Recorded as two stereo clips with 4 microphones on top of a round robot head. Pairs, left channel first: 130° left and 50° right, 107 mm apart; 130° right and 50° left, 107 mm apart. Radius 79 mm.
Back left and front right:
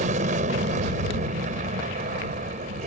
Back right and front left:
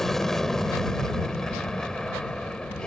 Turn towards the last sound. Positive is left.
turn(degrees=-45)